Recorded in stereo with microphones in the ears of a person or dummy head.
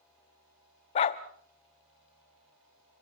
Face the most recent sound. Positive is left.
turn(degrees=30)  # may be behind; listen again after turning